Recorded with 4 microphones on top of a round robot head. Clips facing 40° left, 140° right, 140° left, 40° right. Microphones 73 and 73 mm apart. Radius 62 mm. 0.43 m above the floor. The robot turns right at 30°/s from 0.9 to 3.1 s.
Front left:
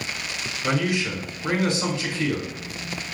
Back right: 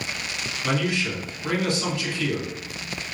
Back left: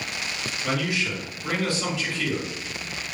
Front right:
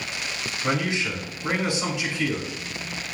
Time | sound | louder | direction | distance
0.6 | a man speaking | front left 1 dB, front right 2 dB | 25° right | 1.4 m